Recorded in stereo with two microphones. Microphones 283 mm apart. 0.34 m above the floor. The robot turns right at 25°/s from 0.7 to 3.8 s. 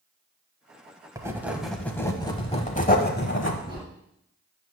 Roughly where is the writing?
Ahead.